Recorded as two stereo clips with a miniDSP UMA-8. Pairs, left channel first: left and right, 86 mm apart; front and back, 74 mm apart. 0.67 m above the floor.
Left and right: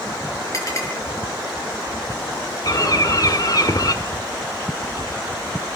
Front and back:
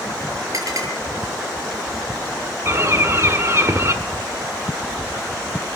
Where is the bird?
130° left, 1.5 m.